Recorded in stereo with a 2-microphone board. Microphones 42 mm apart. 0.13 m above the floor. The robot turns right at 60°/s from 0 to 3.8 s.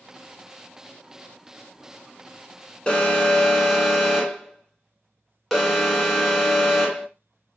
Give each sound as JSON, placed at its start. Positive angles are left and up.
{"t": 2.9, "sound": "an alarm", "side_deg": 20, "distance_m": 1.0}